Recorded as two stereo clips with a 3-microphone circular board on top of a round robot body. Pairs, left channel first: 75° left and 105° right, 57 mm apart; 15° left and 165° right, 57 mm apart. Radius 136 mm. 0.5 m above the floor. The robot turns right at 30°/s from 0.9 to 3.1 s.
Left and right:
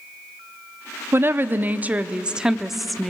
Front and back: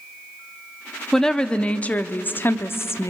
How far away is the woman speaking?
About 1.0 m.